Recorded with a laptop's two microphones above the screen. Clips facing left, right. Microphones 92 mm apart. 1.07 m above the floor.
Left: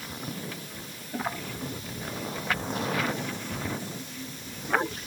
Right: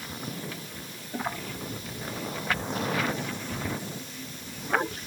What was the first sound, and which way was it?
Only background noise.